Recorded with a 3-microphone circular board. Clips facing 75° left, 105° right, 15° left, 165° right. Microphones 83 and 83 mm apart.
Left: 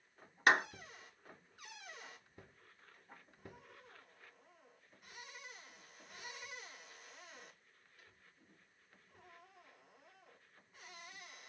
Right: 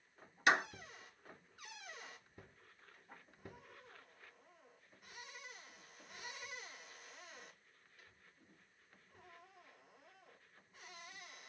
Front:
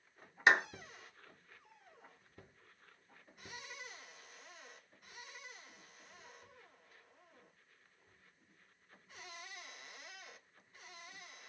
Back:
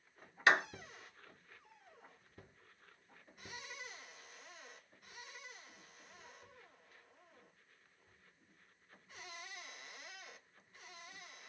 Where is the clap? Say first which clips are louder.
Left 2 dB, front 1 dB; 80° left, 1.7 m.